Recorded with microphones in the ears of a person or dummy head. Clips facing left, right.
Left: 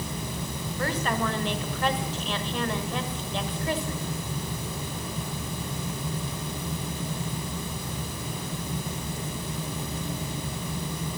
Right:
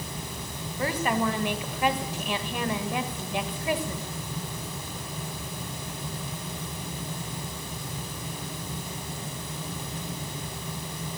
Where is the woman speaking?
5° right (ahead or behind), 1.6 m.